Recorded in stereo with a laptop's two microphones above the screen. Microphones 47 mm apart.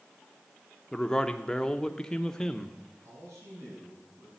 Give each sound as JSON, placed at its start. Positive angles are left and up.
{"t": 0.9, "sound": "a man speaking", "side_deg": 15, "distance_m": 0.8}
{"t": 3.0, "sound": "a man speaking", "side_deg": -70, "distance_m": 8.5}